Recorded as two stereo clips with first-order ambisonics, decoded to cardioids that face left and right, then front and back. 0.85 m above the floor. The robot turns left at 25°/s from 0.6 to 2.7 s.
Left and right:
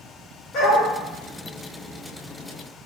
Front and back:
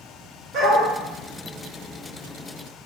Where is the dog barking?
135° left, 1.0 m; by 0.9 s 130° left, 1.0 m.